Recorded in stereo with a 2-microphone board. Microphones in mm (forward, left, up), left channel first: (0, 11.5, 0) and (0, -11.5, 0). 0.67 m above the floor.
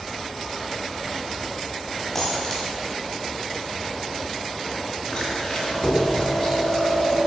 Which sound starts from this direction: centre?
A dropped coin, at 2.1 s.